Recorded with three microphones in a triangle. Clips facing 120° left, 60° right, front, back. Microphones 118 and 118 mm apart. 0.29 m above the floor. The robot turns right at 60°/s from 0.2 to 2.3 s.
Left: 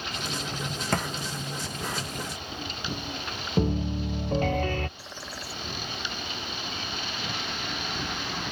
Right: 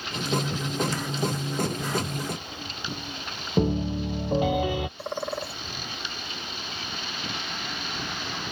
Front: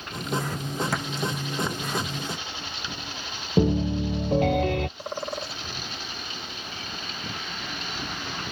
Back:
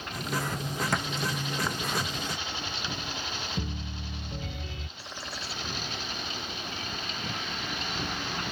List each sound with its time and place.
0.9 s a thud: 90° left; by 1.1 s 100° left
3.6 s a piano: 20° left
5.0 s a bird: 35° right